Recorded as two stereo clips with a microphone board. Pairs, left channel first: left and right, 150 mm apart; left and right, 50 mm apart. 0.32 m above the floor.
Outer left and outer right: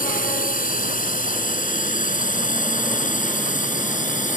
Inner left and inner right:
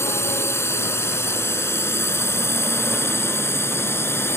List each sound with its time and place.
0.0 s a drone: 65° left (ahead or behind); by 4.4 s 60° left (ahead or behind)